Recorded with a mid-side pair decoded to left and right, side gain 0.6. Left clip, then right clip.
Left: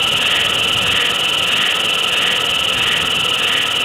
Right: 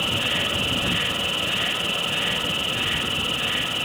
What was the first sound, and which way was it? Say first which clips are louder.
An insect: left 8 dB; 45° left.